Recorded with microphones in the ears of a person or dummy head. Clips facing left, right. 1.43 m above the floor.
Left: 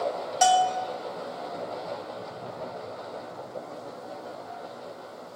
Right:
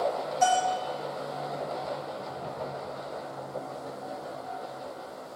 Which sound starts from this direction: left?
A bell, at 0.4 s.